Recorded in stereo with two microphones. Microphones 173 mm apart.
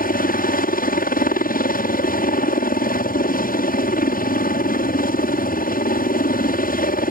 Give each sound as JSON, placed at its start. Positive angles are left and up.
{"t": 0.0, "sound": "a helicopter", "side_deg": 55}